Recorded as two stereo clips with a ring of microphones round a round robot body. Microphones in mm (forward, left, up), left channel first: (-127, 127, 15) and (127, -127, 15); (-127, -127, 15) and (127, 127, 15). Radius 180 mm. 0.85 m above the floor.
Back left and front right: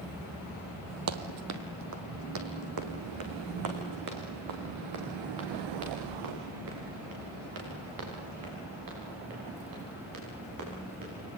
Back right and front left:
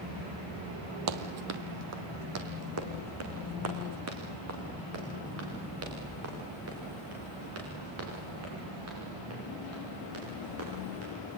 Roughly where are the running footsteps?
Ahead.